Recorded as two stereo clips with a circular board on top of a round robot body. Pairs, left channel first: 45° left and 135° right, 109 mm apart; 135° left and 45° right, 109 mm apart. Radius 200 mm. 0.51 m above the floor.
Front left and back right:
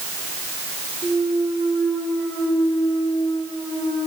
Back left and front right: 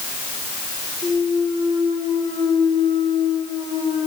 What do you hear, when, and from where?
1.0 s a clunk: 145° left, 7.5 m